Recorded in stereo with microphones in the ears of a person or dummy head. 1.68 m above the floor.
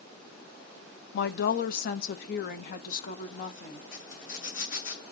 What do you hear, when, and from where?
1.1 s a woman speaking: 55° left (ahead or behind), 1.0 m; by 3.8 s 50° left (ahead or behind), 2.0 m
3.9 s a zipper: 75° left (ahead or behind), 7.5 m